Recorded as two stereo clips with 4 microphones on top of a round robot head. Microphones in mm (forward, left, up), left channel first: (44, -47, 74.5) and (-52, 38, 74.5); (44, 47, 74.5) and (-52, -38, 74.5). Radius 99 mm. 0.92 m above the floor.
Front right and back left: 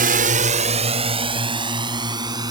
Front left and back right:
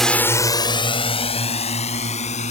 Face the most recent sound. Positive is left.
turn(degrees=75)